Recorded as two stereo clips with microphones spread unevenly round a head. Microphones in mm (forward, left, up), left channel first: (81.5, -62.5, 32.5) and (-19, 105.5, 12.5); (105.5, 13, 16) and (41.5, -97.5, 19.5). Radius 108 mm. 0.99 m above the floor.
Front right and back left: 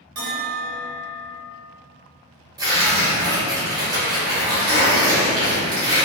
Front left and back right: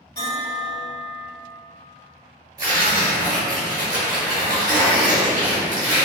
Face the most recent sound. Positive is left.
turn(degrees=-170)